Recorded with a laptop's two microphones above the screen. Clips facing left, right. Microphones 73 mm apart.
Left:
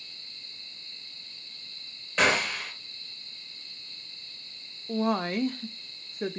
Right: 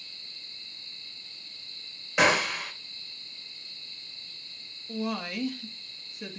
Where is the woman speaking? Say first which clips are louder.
Left 5 dB; 40° left (ahead or behind), 0.7 m.